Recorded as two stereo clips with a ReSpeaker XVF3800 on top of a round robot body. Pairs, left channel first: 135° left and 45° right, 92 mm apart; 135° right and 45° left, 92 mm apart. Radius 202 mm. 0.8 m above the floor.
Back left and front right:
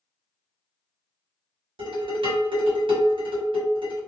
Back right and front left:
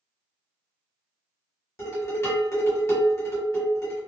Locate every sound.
1.8 s dishes clattering: 75° right, 1.3 m